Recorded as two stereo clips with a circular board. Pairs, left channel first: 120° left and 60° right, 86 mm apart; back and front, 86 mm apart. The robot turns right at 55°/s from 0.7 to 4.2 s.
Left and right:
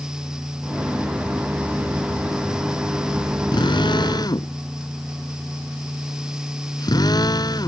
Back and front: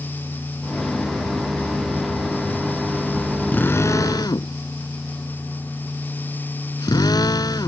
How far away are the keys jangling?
I don't hear keys jangling.